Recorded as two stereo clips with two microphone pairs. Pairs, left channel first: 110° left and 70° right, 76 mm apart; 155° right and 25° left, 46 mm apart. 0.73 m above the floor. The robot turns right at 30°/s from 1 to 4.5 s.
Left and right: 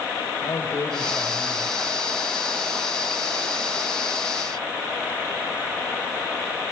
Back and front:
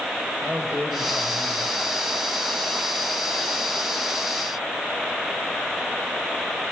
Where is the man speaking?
75° left, 3.5 m; by 1.8 s 100° left, 3.5 m.